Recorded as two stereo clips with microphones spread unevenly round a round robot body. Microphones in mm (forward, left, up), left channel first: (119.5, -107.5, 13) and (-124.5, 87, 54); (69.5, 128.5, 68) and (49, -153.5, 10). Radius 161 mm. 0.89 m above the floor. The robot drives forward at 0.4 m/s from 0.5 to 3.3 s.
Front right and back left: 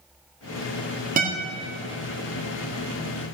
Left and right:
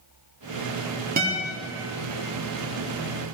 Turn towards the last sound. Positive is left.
turn(degrees=-160)